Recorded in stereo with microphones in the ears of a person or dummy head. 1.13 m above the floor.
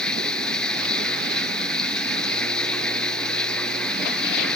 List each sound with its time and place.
0.0 s running water: centre (ahead or behind)